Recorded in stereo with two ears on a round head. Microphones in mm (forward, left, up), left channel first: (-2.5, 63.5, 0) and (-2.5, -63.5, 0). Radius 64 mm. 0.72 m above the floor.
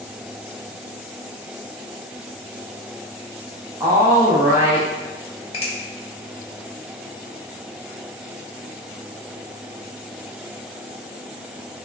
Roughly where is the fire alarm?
I don't hear a fire alarm.